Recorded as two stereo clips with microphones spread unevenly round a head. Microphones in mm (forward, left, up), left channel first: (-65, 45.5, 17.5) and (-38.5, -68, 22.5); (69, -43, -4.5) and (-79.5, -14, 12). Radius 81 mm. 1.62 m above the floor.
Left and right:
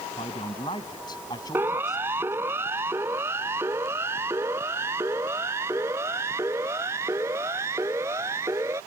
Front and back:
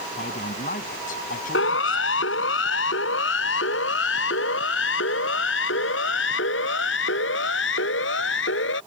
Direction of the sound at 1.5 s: Straight ahead.